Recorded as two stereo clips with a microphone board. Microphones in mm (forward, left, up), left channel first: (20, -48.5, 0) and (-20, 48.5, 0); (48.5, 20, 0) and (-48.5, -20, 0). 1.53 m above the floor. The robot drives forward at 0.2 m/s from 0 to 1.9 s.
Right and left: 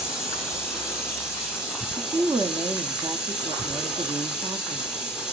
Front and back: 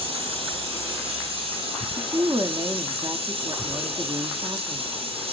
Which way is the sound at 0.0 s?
165° right.